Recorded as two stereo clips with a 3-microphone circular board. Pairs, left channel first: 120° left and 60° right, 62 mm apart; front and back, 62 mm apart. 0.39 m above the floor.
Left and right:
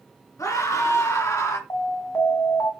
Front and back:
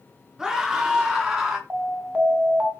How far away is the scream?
About 4.5 m.